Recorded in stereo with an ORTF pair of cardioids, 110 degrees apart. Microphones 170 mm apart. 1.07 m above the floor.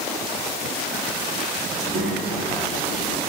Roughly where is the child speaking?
Ahead right.